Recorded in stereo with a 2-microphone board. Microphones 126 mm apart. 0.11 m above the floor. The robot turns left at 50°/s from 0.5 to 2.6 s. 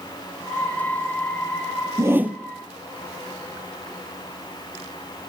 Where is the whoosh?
25° right (ahead or behind), 0.8 m; by 2.4 s 5° right (ahead or behind), 0.8 m.